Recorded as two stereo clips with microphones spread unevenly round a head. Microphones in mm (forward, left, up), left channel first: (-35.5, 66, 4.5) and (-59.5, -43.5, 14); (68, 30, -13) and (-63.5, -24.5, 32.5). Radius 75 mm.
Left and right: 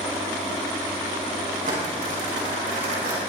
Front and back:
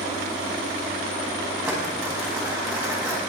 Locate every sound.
1.6 s crumpling: 75° right, 5 m